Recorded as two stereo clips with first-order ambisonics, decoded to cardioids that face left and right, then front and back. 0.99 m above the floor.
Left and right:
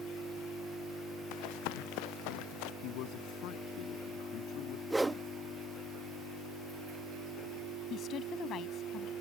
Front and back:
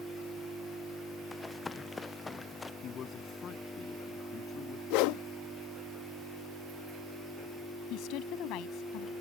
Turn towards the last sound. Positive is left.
turn(degrees=35)